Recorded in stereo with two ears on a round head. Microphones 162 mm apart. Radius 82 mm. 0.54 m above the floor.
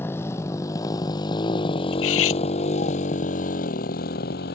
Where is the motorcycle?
15° left (ahead or behind); by 4.6 s 60° left (ahead or behind).